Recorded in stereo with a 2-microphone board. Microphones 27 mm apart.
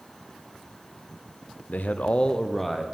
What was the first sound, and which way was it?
A man speaking, 75° left (ahead or behind).